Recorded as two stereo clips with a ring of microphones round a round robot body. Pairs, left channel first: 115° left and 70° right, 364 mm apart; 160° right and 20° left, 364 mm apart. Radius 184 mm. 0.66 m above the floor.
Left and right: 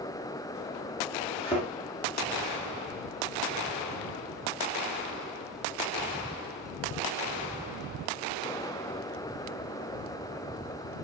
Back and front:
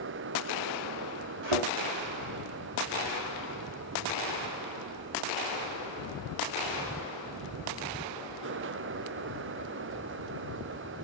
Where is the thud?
35° left, 4.5 m.